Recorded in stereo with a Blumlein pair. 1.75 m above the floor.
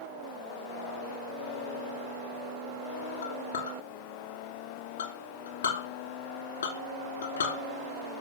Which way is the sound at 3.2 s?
70° left.